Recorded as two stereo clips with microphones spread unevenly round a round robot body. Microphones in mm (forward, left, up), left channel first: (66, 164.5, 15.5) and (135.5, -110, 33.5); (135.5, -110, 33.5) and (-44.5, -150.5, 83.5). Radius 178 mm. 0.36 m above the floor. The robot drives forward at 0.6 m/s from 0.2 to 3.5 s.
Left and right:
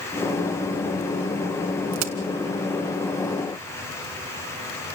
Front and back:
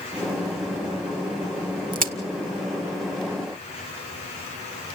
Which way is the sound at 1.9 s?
120° right.